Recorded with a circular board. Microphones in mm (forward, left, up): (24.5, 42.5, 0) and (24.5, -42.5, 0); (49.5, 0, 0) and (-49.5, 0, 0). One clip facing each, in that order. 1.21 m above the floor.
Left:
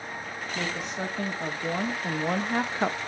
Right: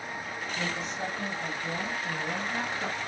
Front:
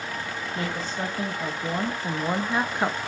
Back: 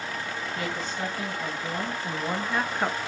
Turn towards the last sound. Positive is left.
turn(degrees=85)